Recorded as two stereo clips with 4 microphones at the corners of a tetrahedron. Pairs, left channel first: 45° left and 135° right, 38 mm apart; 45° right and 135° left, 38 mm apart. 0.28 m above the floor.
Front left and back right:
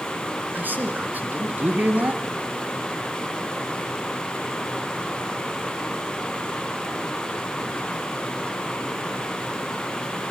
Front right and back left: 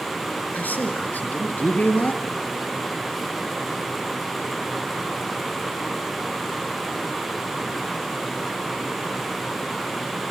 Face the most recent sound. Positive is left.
turn(degrees=-90)